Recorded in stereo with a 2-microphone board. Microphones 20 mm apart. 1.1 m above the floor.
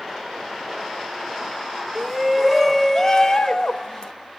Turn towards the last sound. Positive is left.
turn(degrees=45)  # may be behind; listen again after turning